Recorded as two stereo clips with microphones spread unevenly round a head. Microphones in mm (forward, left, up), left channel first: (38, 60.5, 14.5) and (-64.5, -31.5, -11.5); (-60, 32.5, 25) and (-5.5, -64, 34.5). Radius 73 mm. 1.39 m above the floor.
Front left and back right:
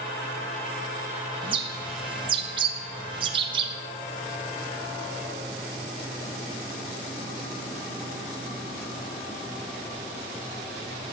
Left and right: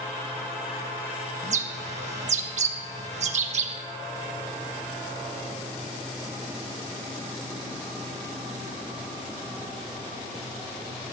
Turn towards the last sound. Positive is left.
turn(degrees=-80)